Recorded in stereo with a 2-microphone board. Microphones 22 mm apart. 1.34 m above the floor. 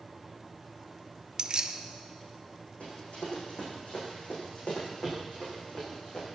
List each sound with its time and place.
1.4 s keys jangling: 35° right (ahead or behind), 0.6 m
2.8 s running footsteps: 75° left (ahead or behind), 5 m; by 6.3 s 65° left (ahead or behind), 6.5 m